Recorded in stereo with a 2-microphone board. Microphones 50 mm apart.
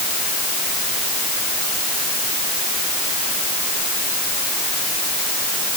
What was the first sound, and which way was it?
Only background noise.